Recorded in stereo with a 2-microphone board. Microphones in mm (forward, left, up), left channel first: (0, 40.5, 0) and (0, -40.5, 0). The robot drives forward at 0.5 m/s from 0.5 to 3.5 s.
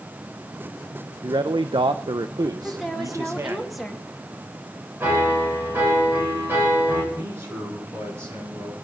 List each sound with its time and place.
1.2 s a man speaking: 55° right (ahead or behind), 0.7 m; by 3.6 s 35° right (ahead or behind), 1.0 m
2.6 s a woman speaking: centre (ahead or behind), 1.9 m
5.0 s a piano: 30° right (ahead or behind), 5.5 m
7.1 s a man speaking: 35° right (ahead or behind), 8.5 m